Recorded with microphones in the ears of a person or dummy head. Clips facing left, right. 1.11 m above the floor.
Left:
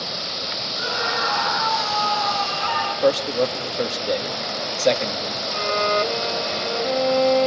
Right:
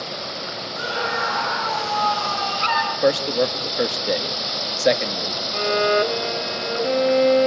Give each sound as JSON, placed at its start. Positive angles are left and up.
{"t": 0.8, "sound": "a scream", "side_deg": -55, "distance_m": 7.0}
{"t": 3.0, "sound": "a man speaking", "side_deg": -10, "distance_m": 1.8}
{"t": 5.5, "sound": "a violin", "side_deg": -20, "distance_m": 0.7}